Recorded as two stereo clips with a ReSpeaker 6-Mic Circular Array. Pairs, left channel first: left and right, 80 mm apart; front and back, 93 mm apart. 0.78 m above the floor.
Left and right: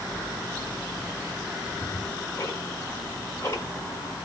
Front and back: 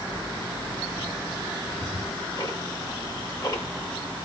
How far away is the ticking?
About 5.5 m.